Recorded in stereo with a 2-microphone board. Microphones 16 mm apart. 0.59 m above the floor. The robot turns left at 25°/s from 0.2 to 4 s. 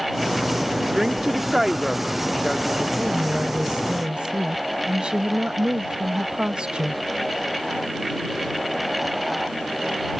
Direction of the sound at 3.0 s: 65° right (ahead or behind).